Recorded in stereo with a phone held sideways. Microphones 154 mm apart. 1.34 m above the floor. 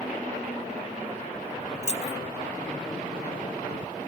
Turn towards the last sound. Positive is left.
turn(degrees=50)  # may be behind; listen again after turning